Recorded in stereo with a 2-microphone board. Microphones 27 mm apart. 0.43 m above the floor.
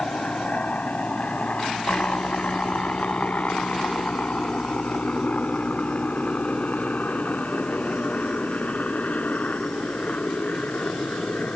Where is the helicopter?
45° left (ahead or behind); by 11.6 s 55° left (ahead or behind).